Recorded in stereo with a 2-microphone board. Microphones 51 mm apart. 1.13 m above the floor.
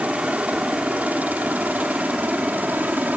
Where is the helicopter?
30° right (ahead or behind); by 3.2 s 35° right (ahead or behind).